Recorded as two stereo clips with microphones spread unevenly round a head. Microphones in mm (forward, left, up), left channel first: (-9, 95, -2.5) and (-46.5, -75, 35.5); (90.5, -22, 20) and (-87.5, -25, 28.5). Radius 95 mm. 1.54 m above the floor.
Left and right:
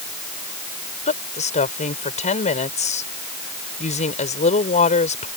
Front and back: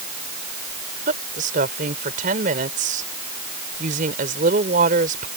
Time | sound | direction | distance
1.1 | a woman speaking | 130° left | ?